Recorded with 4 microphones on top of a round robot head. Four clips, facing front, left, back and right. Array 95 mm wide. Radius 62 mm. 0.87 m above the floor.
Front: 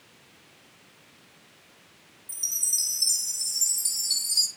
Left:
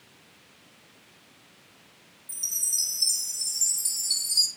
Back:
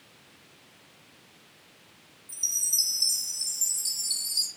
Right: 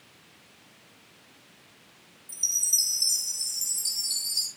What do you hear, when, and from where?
2.3 s a chime: 40° left, 1.2 m